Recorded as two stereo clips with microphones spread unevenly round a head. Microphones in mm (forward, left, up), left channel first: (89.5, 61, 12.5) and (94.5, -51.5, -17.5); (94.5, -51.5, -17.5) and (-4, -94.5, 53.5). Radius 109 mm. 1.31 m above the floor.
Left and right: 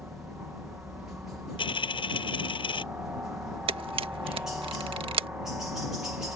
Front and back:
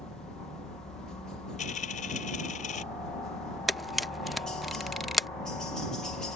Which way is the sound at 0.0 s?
20° right.